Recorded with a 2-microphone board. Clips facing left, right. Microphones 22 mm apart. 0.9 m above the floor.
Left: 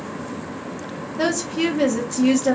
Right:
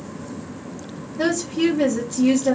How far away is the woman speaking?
About 1.2 m.